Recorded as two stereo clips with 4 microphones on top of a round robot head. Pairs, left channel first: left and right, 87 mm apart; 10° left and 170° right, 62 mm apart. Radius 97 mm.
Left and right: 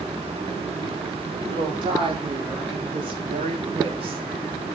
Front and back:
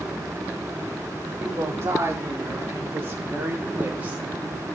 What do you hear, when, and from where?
1.4 s a woman speaking: 120° right, 5 m; by 4.2 s 100° right, 3 m